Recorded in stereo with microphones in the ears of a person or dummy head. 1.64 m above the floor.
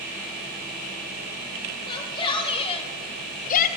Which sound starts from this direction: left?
A shout, at 1.9 s.